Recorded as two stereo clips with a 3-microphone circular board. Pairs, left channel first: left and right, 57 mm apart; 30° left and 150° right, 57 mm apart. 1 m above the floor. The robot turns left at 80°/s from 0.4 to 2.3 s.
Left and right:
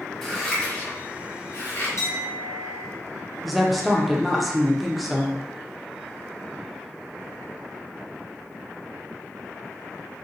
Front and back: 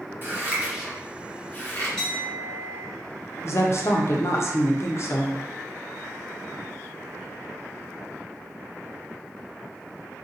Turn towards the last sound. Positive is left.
turn(degrees=0)